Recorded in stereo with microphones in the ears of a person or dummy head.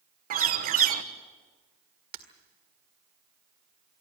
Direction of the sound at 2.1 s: 40° right (ahead or behind).